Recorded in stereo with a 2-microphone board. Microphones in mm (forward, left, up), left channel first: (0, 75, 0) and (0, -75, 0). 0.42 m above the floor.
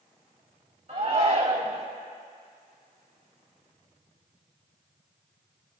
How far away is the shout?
About 1.9 m.